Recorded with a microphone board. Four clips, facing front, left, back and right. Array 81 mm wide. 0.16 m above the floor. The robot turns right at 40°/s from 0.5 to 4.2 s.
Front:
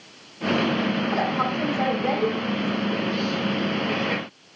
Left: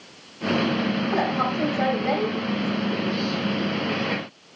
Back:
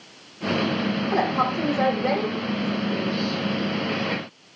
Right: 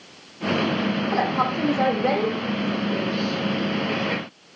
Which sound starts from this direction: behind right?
A woman speaking, at 1.1 s.